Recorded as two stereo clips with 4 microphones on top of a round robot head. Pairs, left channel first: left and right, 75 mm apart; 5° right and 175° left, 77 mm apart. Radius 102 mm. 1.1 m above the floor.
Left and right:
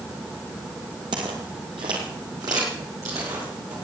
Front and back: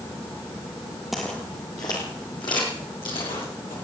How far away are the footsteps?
About 1.5 m.